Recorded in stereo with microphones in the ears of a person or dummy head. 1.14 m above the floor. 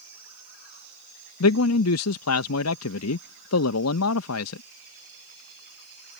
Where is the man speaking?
80° left.